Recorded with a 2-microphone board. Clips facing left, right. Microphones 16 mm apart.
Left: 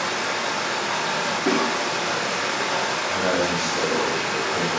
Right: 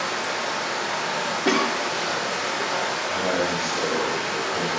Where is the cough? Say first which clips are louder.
Right 1 dB; 80° right, 1.1 m.